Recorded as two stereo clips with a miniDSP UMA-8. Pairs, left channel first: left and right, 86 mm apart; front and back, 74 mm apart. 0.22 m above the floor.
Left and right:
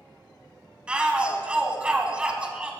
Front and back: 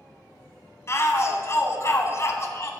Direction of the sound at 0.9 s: 20° right.